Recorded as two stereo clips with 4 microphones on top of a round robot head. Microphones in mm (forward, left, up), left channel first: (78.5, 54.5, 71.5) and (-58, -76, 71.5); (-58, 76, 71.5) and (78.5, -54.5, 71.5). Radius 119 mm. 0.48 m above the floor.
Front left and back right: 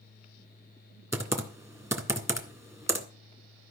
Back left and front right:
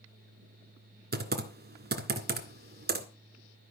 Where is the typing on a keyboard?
60° right, 2 m.